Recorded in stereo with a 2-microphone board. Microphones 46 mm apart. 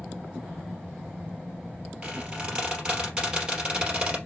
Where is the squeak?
25° right (ahead or behind), 3 m.